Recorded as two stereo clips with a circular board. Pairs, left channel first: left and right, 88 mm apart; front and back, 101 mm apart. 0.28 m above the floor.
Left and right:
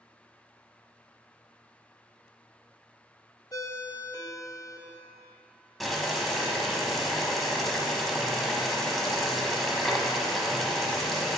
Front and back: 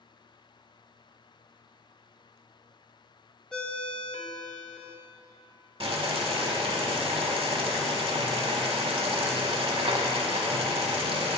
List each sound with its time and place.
3.5 s a ringtone: 80° left, 0.5 m
5.8 s boiling: straight behind, 0.7 m